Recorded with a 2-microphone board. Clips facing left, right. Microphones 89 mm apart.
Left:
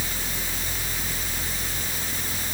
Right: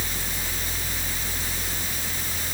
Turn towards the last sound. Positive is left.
No sound to turn to.